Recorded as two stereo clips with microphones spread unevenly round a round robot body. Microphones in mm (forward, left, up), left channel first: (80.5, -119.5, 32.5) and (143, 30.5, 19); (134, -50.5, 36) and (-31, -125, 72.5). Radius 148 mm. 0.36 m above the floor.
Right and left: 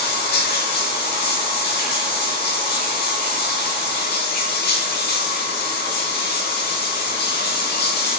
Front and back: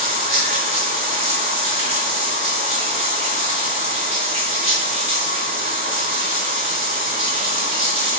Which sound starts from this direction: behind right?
Running water, at 0.0 s.